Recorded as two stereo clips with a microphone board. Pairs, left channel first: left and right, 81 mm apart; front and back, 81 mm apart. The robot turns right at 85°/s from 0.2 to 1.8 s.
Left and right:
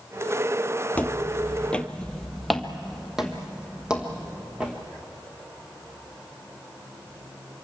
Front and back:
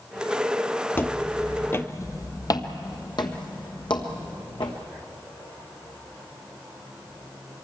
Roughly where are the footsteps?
Ahead left.